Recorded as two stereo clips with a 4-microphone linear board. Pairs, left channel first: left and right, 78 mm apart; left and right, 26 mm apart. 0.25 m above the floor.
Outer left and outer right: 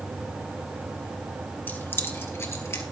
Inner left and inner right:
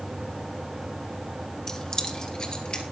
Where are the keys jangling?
25° left (ahead or behind), 1.8 m; by 2.8 s 40° left (ahead or behind), 3.5 m.